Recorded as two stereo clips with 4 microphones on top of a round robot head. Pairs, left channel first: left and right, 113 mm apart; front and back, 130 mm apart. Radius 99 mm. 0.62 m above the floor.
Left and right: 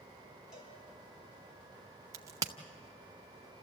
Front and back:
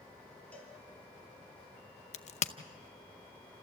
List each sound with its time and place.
0.5 s a cowbell: 80° left, 6 m
2.1 s a crack: 30° right, 0.7 m